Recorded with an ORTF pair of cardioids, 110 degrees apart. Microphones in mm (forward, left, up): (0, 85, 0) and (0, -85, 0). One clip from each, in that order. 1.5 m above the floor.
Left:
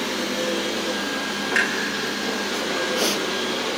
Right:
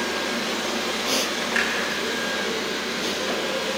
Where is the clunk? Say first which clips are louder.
Left 3 dB; 10° left, 2.5 m.